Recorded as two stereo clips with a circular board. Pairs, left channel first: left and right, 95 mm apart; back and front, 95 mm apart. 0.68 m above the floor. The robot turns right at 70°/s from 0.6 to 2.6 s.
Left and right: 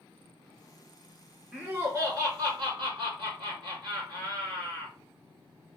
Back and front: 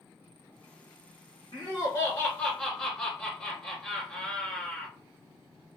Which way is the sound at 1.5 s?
175° right.